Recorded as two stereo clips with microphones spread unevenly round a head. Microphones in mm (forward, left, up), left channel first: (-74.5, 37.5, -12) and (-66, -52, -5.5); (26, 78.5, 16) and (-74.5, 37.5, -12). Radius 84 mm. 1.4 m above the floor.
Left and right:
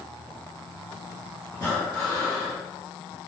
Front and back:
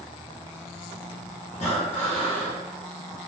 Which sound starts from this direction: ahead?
Breathing, at 1.5 s.